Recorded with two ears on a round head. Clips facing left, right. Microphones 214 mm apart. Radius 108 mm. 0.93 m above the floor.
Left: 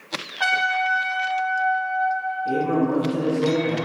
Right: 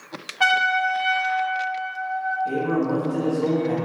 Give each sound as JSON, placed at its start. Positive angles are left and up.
{"t": 0.4, "sound": "a trumpet", "side_deg": -35, "distance_m": 0.6}
{"t": 2.5, "sound": "a man speaking", "side_deg": -5, "distance_m": 0.8}